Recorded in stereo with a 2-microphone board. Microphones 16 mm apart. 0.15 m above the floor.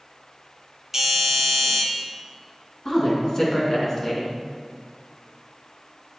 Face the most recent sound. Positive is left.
turn(degrees=35)  # may be behind; listen again after turning